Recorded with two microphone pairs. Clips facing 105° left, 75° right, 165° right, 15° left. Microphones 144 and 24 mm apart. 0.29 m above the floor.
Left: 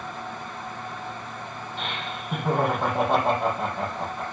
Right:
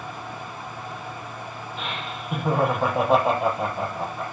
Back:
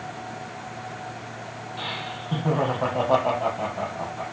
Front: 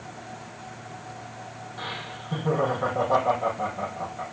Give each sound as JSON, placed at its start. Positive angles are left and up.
{"t": 1.8, "sound": "laughter", "azimuth_deg": -160, "distance_m": 7.5}